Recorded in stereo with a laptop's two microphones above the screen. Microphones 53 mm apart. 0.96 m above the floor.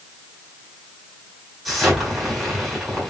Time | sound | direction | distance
1.6 | an explosion | 5° right (ahead or behind) | 4.5 m